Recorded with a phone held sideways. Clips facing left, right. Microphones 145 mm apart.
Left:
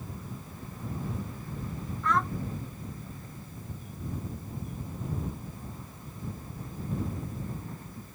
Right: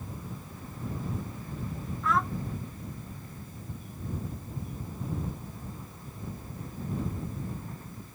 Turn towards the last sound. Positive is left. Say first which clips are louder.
# even
turn(degrees=0)  # may be behind; listen again after turning